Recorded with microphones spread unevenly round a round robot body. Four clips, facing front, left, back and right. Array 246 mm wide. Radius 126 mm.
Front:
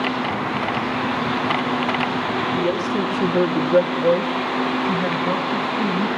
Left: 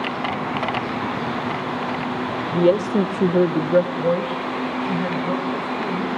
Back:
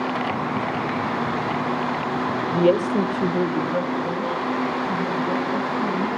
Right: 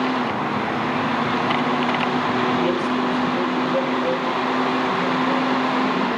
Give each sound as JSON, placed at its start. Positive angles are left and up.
{"t": 2.5, "sound": "a woman speaking", "azimuth_deg": 130, "distance_m": 1.6}